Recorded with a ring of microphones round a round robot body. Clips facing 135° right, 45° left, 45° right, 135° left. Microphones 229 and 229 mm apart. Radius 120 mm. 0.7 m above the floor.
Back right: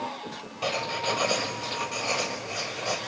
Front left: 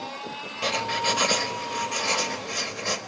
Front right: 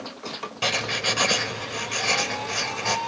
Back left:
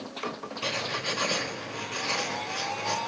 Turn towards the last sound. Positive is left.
turn(degrees=-20)